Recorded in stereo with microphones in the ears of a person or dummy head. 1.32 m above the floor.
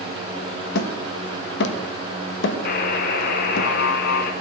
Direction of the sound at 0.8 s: 70° left (ahead or behind).